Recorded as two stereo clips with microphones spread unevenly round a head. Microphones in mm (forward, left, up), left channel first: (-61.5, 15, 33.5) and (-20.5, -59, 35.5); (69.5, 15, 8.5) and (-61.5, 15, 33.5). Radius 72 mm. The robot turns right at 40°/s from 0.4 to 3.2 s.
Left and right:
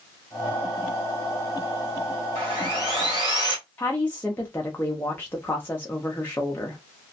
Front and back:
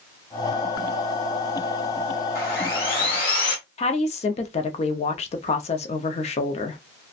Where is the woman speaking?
45° left, 0.6 m.